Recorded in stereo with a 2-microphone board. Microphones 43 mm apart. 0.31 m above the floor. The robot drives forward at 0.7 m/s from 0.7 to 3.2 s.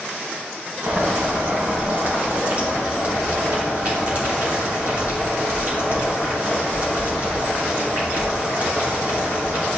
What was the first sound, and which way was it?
Boiling, 60° right (ahead or behind).